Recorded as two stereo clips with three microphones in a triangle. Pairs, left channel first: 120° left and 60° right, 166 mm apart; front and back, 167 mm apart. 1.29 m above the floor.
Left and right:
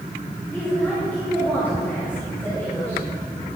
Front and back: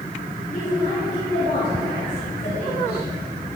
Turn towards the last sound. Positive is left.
turn(degrees=40)